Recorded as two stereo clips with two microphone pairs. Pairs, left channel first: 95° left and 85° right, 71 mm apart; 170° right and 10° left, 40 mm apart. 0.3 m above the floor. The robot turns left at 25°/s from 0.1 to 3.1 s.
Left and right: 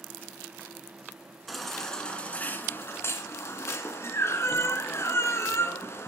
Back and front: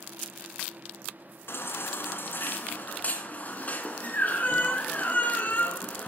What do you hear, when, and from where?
1.5 s a baby crying: 175° right, 2.5 m; by 6.1 s 145° left, 2.5 m